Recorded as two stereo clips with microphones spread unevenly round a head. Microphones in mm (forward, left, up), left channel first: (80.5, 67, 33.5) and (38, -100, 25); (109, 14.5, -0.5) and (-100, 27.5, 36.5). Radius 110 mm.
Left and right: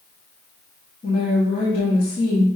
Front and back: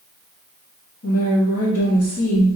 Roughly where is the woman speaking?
Ahead left.